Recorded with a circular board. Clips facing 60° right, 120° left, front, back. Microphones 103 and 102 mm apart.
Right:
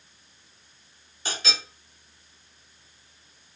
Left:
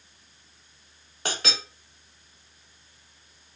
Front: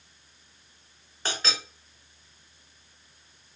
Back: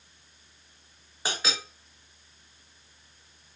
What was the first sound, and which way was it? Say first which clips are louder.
A clink: left 2 dB, even; 100° left.